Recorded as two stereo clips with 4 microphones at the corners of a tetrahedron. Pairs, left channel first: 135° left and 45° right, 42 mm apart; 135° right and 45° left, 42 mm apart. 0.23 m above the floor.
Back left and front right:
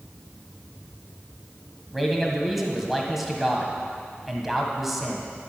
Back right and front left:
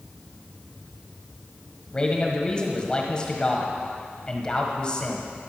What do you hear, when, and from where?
1.9 s a man speaking: 130° right, 1.4 m